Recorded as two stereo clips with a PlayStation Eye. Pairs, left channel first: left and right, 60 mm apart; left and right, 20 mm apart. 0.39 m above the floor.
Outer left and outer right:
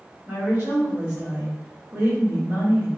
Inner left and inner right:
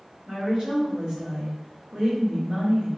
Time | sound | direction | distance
0.3 | a woman speaking | 40° right (ahead or behind) | 1.6 m